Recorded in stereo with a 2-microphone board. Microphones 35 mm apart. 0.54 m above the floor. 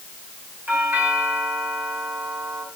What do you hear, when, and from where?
0.7 s a doorbell: 70° right (ahead or behind), 6.5 m